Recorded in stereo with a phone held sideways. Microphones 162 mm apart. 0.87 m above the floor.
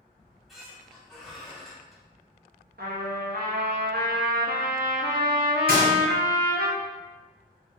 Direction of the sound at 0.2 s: Centre (ahead or behind).